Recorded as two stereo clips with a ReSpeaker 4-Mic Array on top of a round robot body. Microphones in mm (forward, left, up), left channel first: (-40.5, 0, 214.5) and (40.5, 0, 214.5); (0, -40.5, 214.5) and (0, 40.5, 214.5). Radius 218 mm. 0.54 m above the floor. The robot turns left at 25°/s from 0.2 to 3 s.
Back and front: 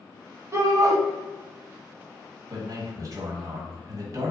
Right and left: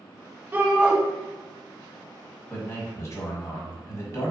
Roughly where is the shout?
Ahead left.